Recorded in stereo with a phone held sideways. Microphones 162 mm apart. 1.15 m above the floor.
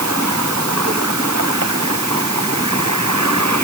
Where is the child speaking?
No child speaking in this recording.